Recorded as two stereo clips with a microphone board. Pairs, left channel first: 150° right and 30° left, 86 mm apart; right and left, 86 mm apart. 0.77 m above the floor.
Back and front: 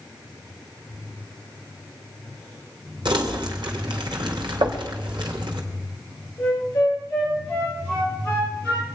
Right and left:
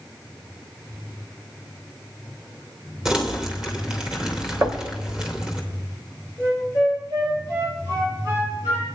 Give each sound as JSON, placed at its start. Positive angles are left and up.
{"t": 3.0, "sound": "crumpling", "azimuth_deg": 5, "distance_m": 2.5}
{"t": 4.6, "sound": "knocking", "azimuth_deg": 30, "distance_m": 2.5}
{"t": 6.4, "sound": "a flute", "azimuth_deg": 140, "distance_m": 9.5}